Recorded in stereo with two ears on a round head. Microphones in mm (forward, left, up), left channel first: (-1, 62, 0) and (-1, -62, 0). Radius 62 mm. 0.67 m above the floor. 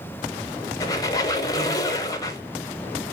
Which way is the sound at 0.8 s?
25° left (ahead or behind).